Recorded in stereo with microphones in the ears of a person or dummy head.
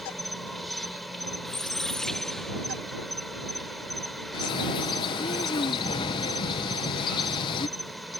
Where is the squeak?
Centre (ahead or behind).